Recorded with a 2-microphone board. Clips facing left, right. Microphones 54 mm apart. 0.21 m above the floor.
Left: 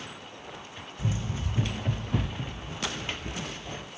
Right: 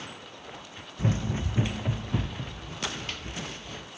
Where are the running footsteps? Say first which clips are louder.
Right 4 dB; 45° right (ahead or behind), 0.6 m; by 3.9 s 25° left (ahead or behind), 1.5 m.